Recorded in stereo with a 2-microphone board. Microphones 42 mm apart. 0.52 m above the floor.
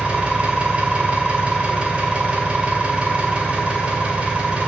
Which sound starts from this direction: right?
An engine running, at 0.0 s.